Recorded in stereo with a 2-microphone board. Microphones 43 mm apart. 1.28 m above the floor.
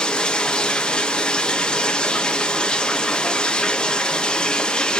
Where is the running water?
20° left (ahead or behind), 0.7 m.